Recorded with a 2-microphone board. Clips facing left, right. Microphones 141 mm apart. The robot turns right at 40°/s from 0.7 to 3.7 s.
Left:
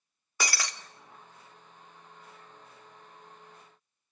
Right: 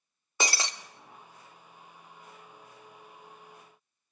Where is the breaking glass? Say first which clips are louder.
Right 3 dB; 25° right (ahead or behind), 0.6 m.